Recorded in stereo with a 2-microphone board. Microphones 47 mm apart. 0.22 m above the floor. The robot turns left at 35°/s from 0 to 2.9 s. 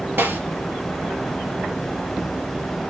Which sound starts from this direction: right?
A snare drum, at 0.2 s.